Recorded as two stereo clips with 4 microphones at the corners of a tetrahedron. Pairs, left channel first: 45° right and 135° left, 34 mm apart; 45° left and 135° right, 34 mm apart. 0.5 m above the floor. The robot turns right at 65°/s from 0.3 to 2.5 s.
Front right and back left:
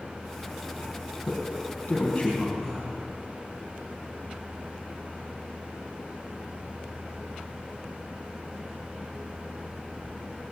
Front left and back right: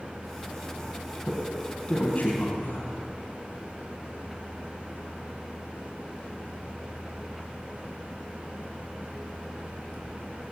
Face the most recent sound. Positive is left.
turn(degrees=25)